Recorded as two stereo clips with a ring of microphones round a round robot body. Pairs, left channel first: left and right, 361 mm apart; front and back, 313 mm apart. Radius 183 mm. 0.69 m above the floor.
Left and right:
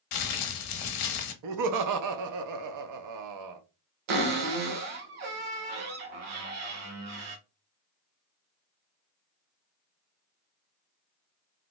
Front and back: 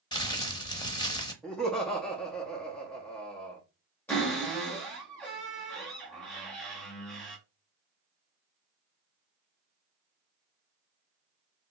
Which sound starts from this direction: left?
Crumpling, at 0.1 s.